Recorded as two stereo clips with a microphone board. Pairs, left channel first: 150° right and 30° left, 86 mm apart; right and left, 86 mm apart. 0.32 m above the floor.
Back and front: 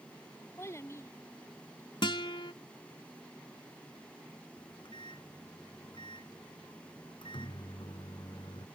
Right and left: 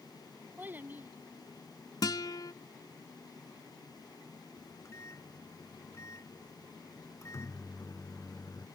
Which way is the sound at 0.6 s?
155° left.